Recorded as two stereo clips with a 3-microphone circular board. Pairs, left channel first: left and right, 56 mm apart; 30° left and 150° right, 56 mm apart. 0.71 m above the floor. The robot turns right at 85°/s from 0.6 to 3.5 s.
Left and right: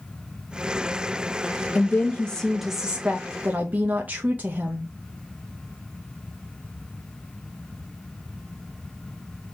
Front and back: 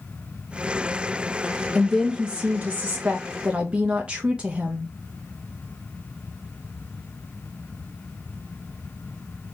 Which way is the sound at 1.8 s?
110° left.